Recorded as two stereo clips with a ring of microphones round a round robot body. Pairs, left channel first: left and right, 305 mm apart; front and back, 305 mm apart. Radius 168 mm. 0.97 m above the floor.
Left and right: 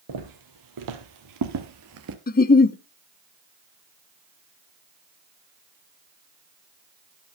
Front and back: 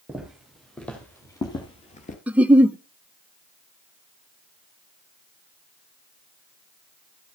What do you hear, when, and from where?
0.1 s footsteps: 95° right, 2 m; by 2.2 s 60° right, 1.3 m
2.3 s a giggle: 100° left, 0.7 m